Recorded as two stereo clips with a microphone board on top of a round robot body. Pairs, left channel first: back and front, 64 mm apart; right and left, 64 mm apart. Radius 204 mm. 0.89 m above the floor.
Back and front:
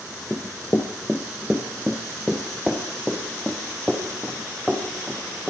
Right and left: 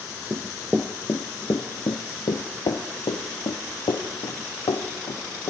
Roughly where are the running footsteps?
Left.